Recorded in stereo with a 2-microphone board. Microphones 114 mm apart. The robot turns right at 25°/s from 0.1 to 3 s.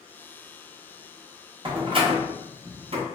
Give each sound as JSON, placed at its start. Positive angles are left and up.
{"t": 1.6, "sound": "a door slam", "side_deg": -45, "distance_m": 0.5}